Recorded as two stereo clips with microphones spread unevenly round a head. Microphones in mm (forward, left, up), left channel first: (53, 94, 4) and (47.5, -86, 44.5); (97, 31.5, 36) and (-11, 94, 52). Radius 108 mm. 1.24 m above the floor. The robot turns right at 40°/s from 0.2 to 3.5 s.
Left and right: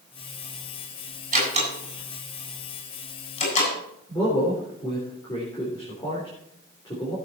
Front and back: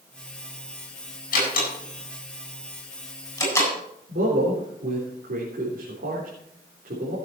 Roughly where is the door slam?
Ahead right.